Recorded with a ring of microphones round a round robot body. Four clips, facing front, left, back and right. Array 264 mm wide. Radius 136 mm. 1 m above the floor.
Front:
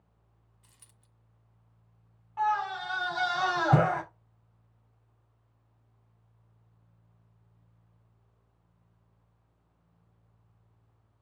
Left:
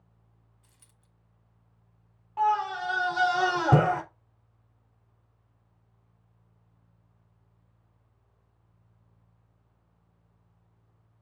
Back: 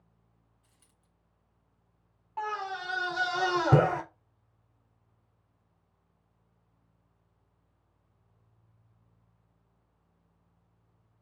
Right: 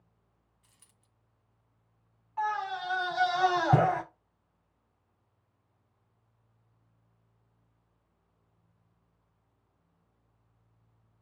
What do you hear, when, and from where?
0.6 s a dropped coin: straight ahead, 1.8 m
2.4 s a scream: 130° left, 3.5 m